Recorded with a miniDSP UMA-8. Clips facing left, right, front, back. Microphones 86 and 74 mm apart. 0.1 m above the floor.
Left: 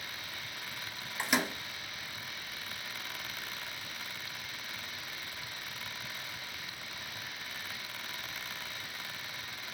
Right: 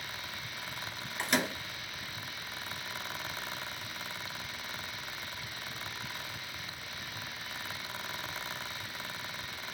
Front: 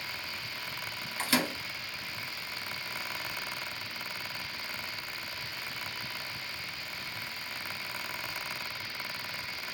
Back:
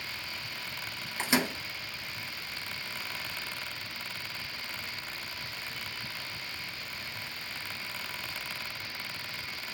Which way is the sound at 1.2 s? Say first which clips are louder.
Even, back 1 dB; 165° left.